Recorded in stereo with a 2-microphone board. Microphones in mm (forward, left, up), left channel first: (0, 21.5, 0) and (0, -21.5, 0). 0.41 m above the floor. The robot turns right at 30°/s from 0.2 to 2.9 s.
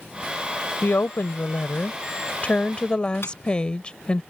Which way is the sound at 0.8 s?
90° left.